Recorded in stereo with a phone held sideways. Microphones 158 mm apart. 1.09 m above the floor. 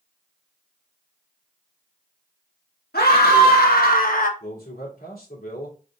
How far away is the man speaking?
About 3 m.